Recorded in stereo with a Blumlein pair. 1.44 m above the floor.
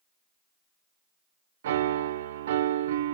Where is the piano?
60° right, 0.8 m.